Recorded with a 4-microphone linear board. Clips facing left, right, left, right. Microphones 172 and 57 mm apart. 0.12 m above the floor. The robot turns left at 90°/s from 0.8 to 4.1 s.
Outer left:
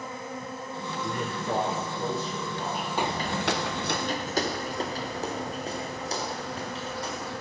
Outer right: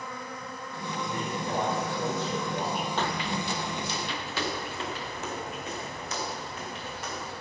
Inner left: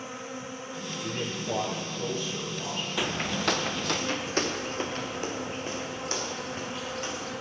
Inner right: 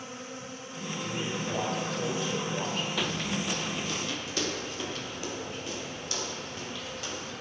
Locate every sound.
0.0 s an insect: 25° left, 1.2 m; by 7.4 s 90° left, 1.2 m
1.0 s a man speaking: 80° left, 2.5 m; by 2.9 s 85° right, 2.5 m
3.0 s footsteps: 10° left (ahead or behind), 0.6 m; by 7.3 s 30° left (ahead or behind), 4 m